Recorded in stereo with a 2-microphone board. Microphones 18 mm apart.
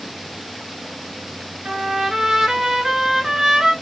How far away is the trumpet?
About 0.9 m.